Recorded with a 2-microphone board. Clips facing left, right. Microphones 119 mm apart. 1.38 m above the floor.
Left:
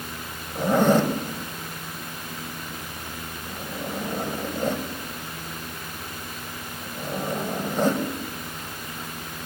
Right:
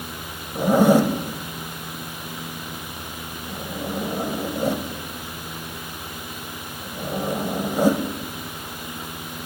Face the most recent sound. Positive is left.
turn(degrees=-10)  # may be behind; listen again after turning